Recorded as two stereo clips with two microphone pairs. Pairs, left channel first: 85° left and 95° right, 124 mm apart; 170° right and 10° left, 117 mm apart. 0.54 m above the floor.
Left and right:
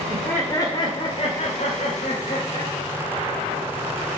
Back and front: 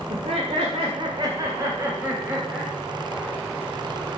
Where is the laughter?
Straight ahead, 1.9 m; by 2.7 s 90° left, 3.5 m.